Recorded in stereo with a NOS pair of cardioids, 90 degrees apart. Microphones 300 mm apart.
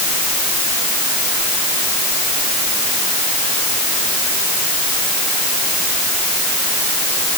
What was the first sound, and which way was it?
Only background noise.